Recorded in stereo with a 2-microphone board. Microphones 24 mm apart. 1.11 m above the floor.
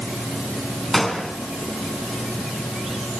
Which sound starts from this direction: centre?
A gunshot, at 0.9 s.